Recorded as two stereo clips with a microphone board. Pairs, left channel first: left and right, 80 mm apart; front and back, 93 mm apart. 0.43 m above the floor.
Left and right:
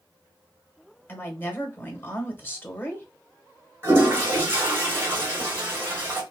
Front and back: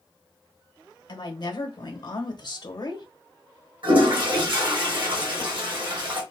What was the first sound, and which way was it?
A woman speaking, 30° left.